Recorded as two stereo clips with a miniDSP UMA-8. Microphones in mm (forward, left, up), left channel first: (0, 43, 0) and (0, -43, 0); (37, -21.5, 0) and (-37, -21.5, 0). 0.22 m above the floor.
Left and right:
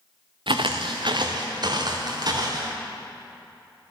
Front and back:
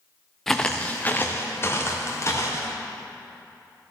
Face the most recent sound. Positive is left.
turn(degrees=-50)